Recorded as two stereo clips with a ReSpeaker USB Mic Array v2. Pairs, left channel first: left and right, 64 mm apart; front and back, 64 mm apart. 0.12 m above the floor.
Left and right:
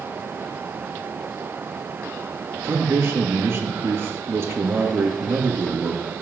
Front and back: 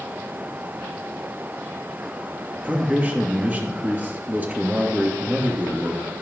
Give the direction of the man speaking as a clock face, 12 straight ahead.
4 o'clock.